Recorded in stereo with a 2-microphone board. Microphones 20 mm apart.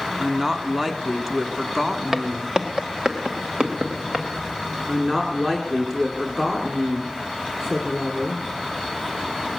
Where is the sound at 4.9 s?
25° right (ahead or behind), 1.6 m.